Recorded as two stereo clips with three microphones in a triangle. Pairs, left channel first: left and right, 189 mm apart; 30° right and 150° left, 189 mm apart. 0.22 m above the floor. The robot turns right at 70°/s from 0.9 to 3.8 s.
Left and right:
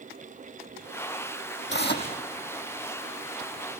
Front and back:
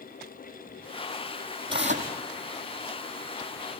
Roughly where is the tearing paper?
Left.